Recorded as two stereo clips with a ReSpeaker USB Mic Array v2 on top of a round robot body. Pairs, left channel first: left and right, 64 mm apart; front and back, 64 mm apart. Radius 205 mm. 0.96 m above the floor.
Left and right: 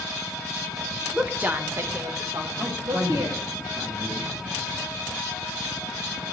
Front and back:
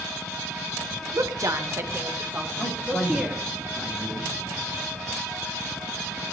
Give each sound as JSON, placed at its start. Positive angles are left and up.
{"t": 1.1, "sound": "a woman speaking", "azimuth_deg": -165, "distance_m": 1.4}
{"t": 2.6, "sound": "a man speaking", "azimuth_deg": -55, "distance_m": 7.0}